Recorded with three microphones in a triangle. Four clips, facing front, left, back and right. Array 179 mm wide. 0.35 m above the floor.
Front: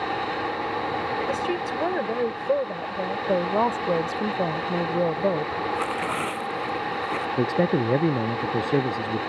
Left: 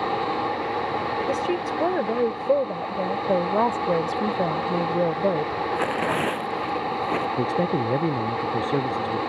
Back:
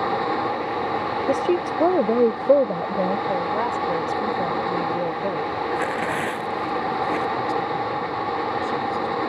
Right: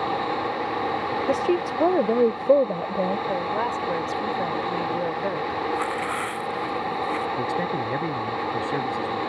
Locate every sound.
1.3 s a woman speaking: 155° right
3.3 s a woman speaking: 55° left
5.7 s tearing paper: 110° left
7.4 s a man speaking: 20° left